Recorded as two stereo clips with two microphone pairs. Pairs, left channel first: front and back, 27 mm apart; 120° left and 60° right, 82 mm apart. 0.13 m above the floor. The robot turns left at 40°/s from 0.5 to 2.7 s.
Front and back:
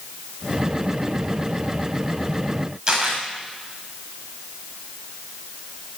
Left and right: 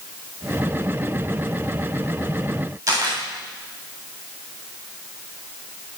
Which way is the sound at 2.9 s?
120° right.